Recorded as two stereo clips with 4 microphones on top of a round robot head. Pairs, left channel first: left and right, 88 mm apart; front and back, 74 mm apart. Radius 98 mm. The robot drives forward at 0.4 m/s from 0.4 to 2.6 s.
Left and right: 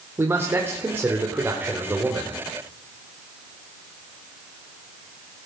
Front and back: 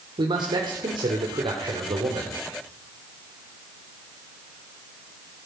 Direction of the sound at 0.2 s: 155° right.